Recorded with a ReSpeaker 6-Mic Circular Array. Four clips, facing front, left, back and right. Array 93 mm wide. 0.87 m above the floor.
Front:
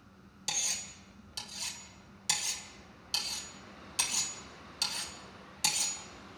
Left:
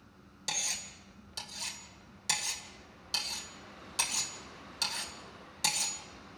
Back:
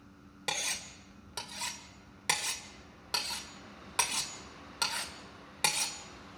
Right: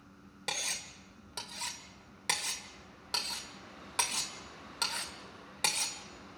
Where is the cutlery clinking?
150° right, 1.6 m.